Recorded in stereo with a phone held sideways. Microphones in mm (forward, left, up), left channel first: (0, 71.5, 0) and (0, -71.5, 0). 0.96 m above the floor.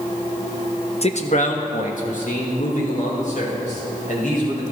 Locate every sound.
1.0 s a man speaking: 45° left (ahead or behind), 0.8 m; by 4.6 s 65° left (ahead or behind), 6 m